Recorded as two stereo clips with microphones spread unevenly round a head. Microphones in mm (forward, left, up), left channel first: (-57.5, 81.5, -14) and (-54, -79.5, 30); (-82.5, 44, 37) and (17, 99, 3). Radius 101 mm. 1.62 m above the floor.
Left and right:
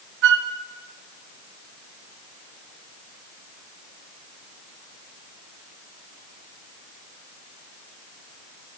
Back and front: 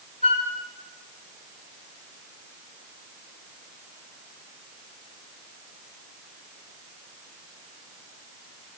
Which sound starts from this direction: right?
A flute, at 0.2 s.